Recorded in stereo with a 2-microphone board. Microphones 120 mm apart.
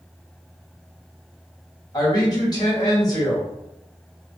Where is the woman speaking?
35° left (ahead or behind), 1.4 m.